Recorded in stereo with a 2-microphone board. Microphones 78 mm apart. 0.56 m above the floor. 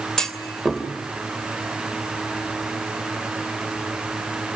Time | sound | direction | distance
0.2 | a clunk | 5° left (ahead or behind) | 2.5 m